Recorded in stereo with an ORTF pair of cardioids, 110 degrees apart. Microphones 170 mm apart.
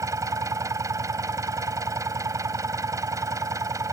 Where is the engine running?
20° right.